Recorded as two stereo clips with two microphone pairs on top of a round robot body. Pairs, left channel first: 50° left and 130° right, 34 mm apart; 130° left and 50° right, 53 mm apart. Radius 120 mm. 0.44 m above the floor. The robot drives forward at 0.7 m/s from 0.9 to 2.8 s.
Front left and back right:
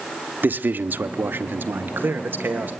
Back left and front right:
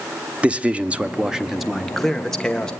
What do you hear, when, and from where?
0.4 s a man speaking: 110° right, 1.1 m; by 2.7 s 155° right, 1.8 m